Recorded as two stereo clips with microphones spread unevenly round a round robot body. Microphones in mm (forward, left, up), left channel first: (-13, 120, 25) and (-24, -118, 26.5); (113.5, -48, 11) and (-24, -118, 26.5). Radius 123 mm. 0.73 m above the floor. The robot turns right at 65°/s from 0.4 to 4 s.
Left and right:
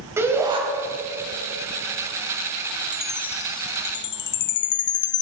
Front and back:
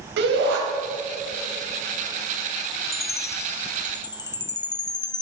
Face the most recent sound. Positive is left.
turn(degrees=75)